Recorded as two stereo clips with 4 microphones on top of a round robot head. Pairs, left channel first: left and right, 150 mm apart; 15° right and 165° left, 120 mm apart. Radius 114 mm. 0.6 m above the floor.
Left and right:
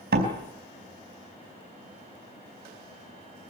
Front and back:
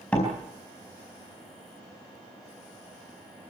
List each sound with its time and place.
0.1 s a door slam: 95° right, 4.5 m